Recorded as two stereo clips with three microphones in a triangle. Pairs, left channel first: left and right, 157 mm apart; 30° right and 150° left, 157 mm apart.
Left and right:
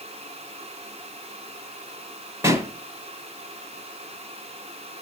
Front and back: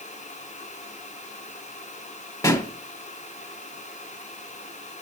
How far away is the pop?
About 1.6 m.